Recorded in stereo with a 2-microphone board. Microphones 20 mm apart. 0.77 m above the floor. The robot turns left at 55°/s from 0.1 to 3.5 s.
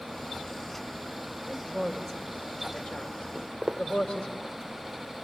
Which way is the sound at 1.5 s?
5° right (ahead or behind).